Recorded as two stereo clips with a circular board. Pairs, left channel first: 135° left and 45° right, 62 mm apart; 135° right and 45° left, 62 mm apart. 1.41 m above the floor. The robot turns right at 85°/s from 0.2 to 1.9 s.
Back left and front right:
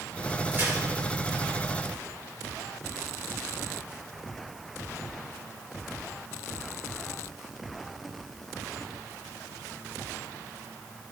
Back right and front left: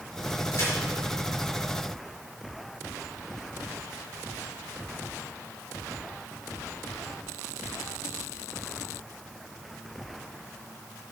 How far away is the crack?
About 5 m.